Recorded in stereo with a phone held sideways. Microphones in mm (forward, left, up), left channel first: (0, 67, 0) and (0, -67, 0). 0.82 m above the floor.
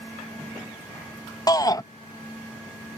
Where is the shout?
25° left (ahead or behind).